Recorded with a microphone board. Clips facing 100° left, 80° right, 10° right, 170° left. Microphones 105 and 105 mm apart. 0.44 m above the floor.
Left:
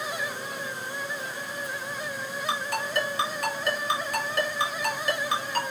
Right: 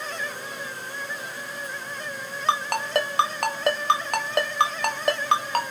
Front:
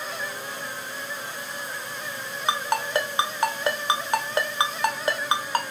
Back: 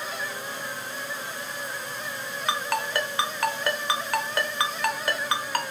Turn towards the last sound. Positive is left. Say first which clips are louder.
# right 7 dB, front 3 dB
turn(degrees=-80)